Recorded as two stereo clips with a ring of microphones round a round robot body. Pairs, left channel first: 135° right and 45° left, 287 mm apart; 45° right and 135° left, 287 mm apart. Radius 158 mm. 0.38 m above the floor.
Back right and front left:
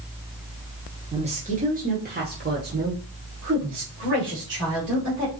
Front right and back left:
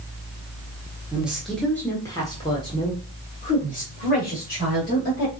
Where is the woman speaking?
60° left, 1.3 m; by 5.3 s 5° left, 2.5 m.